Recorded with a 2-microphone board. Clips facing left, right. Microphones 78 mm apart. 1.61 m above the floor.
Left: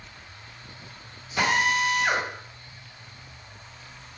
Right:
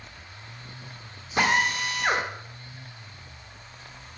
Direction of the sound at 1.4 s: 40° right (ahead or behind).